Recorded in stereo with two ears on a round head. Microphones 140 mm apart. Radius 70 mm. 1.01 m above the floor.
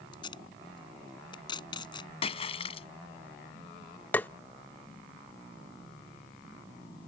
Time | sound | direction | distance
0.1 | tape being pulled | 30° left (ahead or behind) | ?
2.2 | a splash | 40° left (ahead or behind) | ?
4.1 | tapping | 10° left (ahead or behind) | ?